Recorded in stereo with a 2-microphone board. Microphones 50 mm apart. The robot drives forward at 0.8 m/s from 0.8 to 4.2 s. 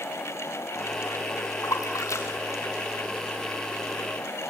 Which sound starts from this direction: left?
A splash, at 1.6 s.